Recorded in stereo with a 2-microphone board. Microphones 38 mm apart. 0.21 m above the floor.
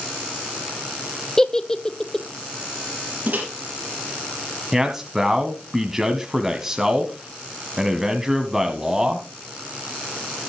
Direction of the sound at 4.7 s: 10° right (ahead or behind).